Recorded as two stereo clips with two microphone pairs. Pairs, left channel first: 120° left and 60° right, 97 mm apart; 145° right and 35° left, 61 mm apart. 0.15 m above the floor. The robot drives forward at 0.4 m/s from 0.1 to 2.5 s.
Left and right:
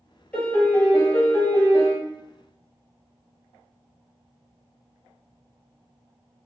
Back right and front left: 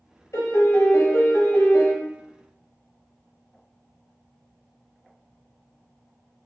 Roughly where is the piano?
Behind.